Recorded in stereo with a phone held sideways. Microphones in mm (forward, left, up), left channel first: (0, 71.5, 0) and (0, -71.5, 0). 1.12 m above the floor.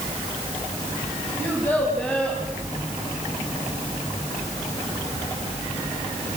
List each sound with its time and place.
1.4 s a child speaking: 15° left (ahead or behind), 5 m; by 2.4 s 5° left (ahead or behind), 5 m